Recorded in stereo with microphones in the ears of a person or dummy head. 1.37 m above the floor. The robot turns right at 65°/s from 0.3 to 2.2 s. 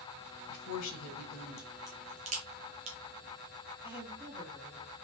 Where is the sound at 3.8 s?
15° right (ahead or behind), 1.3 m.